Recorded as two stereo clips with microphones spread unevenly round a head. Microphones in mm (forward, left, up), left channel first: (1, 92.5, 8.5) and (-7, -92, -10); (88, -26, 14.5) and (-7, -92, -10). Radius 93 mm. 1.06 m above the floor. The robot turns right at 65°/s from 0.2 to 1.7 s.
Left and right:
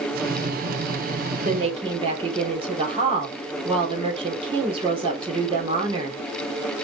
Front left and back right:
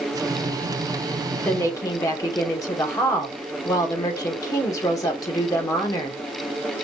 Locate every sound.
1.4 s a woman speaking: 45° right, 3.5 m; by 6.2 s 30° right, 3.5 m